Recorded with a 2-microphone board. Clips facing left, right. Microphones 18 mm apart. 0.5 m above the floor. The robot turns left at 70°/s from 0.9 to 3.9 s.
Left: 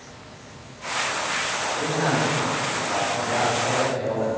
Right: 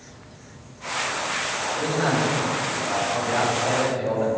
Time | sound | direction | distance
1.8 | a man speaking | 35° right | 2.5 m